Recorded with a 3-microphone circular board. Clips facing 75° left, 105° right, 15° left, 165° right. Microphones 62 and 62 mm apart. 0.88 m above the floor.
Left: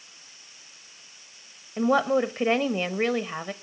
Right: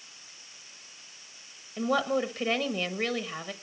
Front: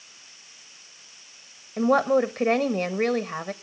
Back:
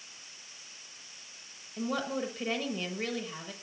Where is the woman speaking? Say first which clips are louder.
Left 5 dB, front 13 dB; 25° left, 1.0 m.